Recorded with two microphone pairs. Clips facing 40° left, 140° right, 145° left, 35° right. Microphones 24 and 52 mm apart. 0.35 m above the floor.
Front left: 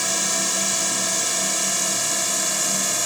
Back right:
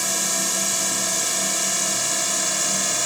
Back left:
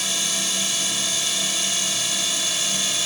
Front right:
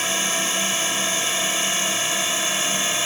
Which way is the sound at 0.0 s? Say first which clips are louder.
Front left 1 dB, front right 4 dB; 40° right.